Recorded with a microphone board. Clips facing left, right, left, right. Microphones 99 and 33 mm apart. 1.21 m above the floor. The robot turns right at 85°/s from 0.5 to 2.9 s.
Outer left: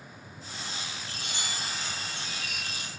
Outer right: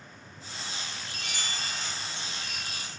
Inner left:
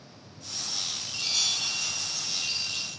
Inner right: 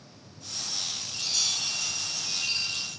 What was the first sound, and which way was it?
A chime, 120° left.